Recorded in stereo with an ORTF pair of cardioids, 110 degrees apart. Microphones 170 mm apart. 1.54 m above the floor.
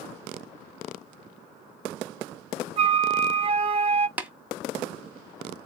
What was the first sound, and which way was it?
A flute, 35° right.